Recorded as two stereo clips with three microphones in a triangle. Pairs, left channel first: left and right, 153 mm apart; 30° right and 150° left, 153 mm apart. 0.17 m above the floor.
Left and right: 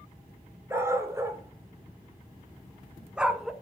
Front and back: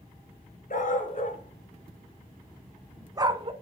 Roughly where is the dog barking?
Ahead.